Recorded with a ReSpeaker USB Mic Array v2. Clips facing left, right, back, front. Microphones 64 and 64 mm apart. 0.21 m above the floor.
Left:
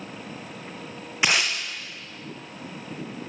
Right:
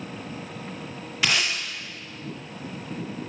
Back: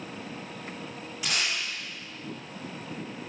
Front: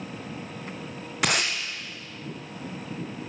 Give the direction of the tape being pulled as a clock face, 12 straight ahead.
11 o'clock.